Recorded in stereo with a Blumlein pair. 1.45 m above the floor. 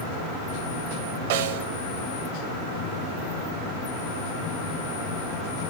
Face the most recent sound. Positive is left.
turn(degrees=-50)